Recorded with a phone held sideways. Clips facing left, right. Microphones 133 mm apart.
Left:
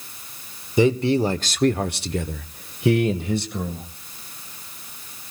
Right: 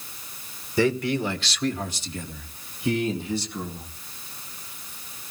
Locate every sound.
0.8 s a man speaking: 20° left (ahead or behind), 1.1 m; by 3.9 s 60° left (ahead or behind), 2 m